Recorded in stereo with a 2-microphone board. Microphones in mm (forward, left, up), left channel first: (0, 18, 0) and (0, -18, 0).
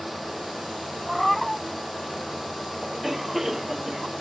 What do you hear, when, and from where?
1.1 s a cat meowing: 5° left (ahead or behind)
2.8 s a cough: 10° right (ahead or behind)